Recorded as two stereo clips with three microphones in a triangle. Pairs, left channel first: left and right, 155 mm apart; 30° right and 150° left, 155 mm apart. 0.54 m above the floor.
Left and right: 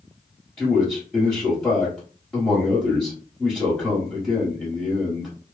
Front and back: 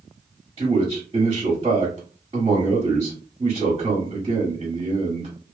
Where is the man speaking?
170° left, 1.4 m.